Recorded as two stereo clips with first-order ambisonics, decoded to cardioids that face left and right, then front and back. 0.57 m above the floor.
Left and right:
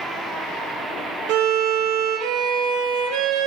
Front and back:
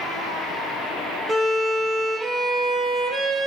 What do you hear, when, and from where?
1.3 s a violin: 105° right, 0.6 m